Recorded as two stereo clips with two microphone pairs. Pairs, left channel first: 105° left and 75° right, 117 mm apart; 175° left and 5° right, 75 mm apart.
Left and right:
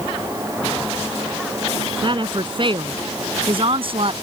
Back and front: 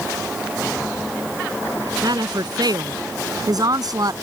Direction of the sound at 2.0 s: 30° right.